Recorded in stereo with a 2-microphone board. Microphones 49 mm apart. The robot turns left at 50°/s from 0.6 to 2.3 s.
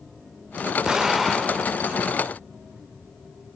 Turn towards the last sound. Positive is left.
turn(degrees=130)